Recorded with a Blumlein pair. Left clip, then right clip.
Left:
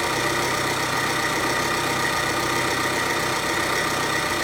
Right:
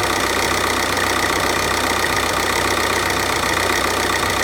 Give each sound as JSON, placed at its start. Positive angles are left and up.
{"t": 0.0, "sound": "an engine running", "azimuth_deg": -30, "distance_m": 0.9}